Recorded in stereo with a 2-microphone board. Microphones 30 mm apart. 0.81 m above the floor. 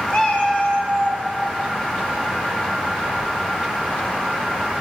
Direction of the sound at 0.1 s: 30° left (ahead or behind).